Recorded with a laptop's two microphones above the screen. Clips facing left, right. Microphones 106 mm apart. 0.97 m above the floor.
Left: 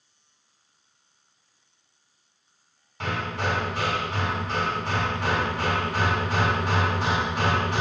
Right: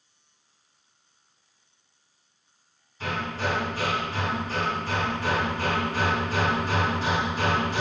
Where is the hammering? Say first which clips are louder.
Left 1 dB; 75° left (ahead or behind), 2.5 m.